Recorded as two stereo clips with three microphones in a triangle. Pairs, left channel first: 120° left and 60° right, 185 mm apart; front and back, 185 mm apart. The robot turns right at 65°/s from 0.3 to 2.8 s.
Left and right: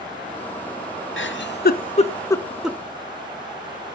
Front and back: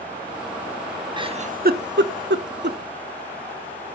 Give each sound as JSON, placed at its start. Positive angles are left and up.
{"t": 1.2, "sound": "a giggle", "azimuth_deg": 115, "distance_m": 0.5}